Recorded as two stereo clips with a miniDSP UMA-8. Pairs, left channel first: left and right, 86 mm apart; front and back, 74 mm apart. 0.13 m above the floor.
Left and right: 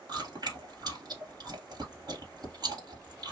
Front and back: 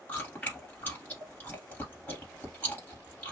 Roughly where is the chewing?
Ahead right.